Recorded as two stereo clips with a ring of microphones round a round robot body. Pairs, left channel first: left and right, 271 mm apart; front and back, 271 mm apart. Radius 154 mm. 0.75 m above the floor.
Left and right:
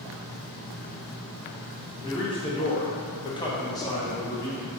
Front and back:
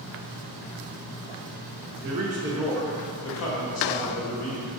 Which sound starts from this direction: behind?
A man speaking, at 2.0 s.